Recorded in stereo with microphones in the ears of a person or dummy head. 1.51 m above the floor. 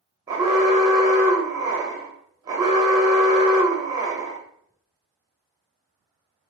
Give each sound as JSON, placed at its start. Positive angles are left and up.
{"t": 0.3, "sound": "an alarm", "side_deg": -20, "distance_m": 1.1}